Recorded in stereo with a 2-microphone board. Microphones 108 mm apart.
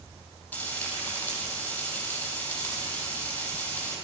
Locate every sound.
0.5 s frying: 15° left (ahead or behind), 5 m